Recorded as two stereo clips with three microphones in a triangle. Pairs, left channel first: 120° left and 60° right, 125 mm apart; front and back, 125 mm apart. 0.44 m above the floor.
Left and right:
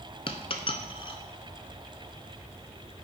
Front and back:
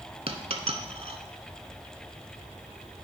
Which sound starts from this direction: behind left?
A dropped coin, at 0.3 s.